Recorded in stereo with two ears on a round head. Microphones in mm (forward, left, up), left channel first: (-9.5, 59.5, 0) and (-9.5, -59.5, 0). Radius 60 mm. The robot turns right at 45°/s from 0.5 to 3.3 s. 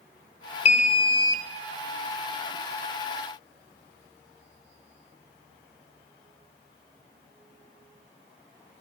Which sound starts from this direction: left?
An alarm, at 0.7 s.